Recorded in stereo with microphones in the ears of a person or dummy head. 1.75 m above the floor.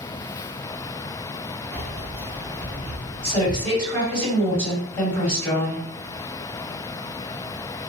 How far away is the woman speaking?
About 1.5 m.